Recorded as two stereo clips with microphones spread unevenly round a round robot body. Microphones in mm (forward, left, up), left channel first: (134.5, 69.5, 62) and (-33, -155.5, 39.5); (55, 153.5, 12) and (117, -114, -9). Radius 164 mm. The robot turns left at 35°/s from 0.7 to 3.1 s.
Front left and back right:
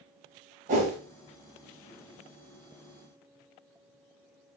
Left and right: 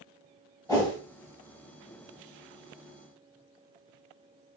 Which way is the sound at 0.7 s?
175° right.